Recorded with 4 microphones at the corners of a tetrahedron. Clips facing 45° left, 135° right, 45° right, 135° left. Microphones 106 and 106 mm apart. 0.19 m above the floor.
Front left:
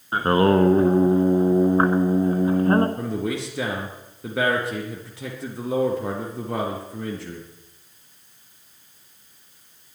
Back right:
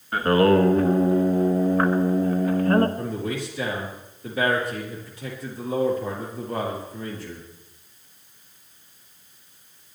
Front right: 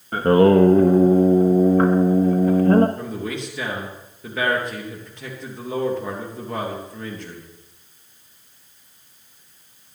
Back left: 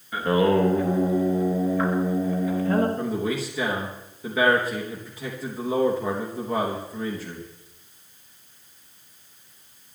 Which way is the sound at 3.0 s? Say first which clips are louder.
Front left 2 dB, back left 2 dB; 50° left.